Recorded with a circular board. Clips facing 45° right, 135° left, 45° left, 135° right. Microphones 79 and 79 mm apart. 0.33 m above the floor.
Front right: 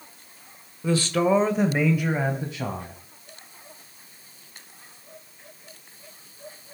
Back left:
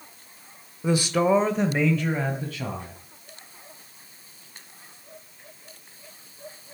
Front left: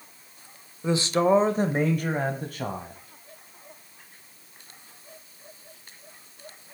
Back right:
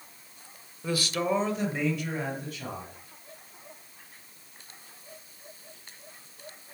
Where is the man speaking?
85° left, 1.0 m; by 3.0 s 15° left, 2 m.